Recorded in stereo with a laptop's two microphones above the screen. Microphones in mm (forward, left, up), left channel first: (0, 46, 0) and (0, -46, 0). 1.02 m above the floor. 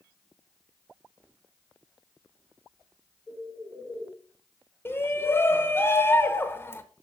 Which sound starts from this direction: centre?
A bird, at 3.3 s.